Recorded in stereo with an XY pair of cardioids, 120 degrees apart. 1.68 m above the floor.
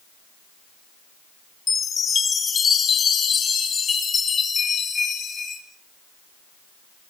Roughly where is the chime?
Ahead left.